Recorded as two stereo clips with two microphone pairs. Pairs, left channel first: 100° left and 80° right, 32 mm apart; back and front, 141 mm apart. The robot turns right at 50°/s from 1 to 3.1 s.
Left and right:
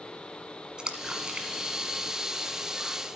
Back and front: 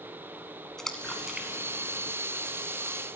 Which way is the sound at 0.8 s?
100° right.